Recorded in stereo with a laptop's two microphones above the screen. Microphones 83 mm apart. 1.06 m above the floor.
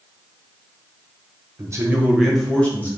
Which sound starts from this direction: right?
A man speaking, at 1.6 s.